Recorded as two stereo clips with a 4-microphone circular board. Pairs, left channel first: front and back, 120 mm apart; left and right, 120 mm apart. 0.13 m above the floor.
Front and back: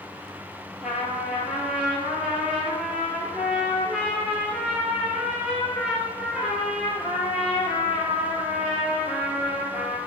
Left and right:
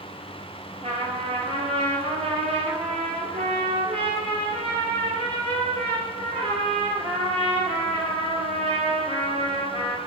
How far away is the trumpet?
About 0.9 m.